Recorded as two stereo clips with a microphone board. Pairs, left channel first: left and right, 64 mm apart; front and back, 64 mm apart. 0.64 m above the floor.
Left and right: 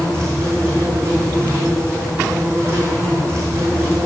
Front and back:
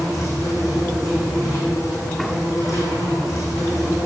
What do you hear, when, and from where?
0.0 s an insect: 35° right, 4.5 m